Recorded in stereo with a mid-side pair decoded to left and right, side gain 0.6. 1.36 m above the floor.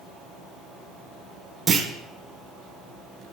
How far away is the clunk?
About 1.0 m.